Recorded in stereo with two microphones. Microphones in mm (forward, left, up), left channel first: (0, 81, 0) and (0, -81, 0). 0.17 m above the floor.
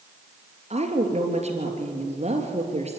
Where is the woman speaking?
40° right (ahead or behind), 3 m.